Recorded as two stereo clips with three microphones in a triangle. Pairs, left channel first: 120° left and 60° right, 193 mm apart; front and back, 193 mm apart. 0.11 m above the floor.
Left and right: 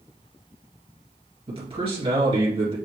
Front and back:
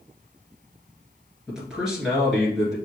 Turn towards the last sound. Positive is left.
turn(degrees=-95)